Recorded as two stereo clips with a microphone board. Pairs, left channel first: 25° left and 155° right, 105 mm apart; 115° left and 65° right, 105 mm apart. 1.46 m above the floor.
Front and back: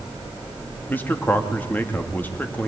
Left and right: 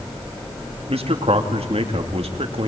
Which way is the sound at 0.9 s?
50° right.